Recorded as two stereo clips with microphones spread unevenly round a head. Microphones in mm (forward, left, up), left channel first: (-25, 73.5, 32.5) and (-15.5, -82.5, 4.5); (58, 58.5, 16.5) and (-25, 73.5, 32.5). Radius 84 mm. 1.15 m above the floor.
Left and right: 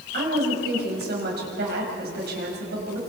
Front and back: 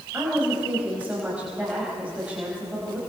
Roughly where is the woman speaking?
Right.